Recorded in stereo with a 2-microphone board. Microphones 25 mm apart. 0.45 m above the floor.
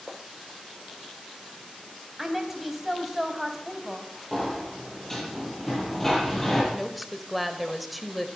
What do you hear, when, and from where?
2.2 s a woman speaking: 5° right (ahead or behind), 3 m
4.3 s a sliding door: 10° left (ahead or behind), 4 m
6.7 s a woman speaking: 5° right (ahead or behind), 1.7 m